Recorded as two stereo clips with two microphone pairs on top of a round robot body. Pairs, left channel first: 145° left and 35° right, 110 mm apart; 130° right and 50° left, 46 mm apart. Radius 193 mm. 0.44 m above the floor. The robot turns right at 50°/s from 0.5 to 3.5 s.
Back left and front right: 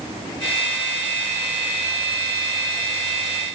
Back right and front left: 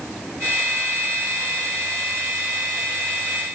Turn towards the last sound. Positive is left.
No sound to turn to.